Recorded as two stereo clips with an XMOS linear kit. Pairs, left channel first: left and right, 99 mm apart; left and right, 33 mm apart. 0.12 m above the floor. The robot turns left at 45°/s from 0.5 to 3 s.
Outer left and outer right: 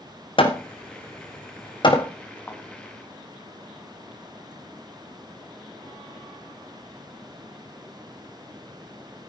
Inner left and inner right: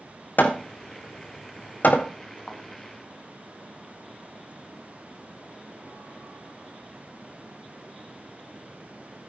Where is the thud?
20° left (ahead or behind), 5.5 m; by 2.6 s 10° left (ahead or behind), 5.5 m.